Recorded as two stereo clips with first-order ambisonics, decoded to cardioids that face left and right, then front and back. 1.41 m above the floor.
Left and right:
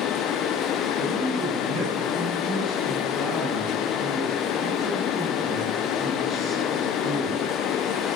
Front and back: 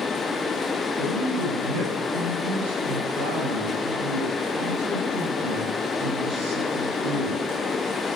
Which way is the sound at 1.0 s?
165° right.